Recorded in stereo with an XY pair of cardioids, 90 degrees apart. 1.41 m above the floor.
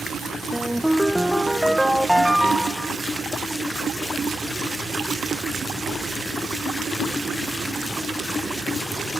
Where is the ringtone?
Straight ahead.